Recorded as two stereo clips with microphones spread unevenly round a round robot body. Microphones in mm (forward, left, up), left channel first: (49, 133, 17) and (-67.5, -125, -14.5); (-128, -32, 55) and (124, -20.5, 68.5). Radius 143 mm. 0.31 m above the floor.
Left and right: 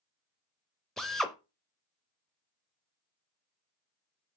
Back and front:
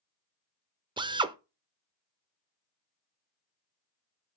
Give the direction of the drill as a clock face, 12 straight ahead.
1 o'clock.